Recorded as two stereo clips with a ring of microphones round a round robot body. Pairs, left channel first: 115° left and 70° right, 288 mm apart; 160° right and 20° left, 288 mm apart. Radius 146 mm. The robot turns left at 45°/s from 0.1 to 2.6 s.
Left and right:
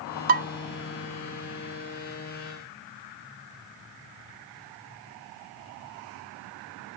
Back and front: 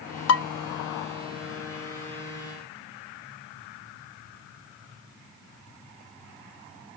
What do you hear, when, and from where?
0.3 s dishes clattering: 125° right, 0.7 m; by 0.5 s 130° right, 0.7 m